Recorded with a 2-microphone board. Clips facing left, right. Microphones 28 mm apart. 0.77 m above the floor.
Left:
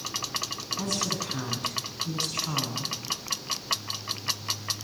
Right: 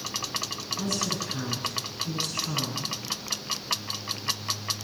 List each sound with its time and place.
0.8 s a woman speaking: 75° left (ahead or behind), 8.5 m